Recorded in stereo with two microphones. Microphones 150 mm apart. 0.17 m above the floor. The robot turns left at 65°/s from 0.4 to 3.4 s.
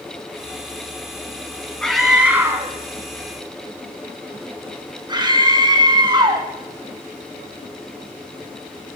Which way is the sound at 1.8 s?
5° left (ahead or behind).